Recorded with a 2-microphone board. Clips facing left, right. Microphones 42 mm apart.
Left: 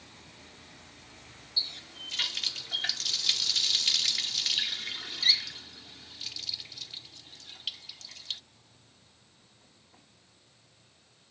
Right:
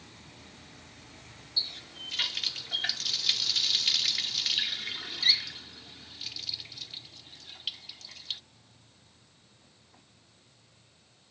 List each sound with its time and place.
1.6 s a running tap: 5° right (ahead or behind)